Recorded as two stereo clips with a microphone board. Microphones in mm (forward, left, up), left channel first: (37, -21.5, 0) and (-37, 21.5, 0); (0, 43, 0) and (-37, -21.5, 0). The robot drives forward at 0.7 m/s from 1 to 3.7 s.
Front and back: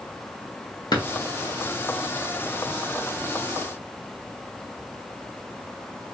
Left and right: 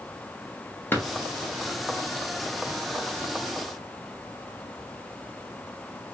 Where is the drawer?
Straight ahead, 0.8 m.